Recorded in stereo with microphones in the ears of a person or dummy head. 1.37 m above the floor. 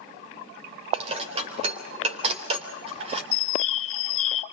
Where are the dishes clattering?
40° right (ahead or behind), 3.5 m.